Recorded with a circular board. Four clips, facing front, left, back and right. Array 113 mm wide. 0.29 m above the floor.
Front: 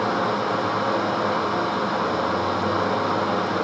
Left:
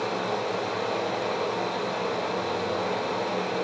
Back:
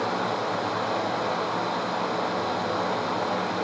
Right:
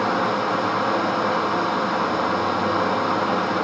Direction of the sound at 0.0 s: 65° right.